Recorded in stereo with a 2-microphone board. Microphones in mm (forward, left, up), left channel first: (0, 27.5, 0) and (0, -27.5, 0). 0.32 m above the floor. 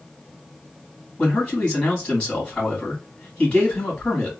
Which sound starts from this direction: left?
A man speaking, at 1.2 s.